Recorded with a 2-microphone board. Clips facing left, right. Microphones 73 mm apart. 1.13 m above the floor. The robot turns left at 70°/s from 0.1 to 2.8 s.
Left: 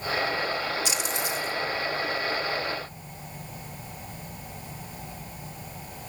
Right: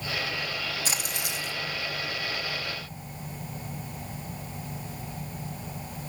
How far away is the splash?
About 0.9 m.